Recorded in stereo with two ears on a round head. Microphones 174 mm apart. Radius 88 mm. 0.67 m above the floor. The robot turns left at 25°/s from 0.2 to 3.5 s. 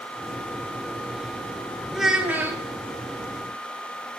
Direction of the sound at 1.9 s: Centre (ahead or behind).